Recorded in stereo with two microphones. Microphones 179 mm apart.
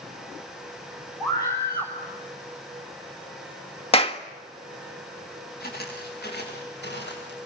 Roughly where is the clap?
Left.